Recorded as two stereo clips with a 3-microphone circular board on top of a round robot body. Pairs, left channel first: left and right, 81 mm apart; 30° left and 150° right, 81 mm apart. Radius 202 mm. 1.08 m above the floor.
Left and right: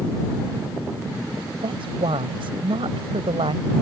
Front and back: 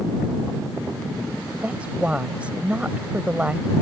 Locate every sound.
1.6 s a woman speaking: 75° right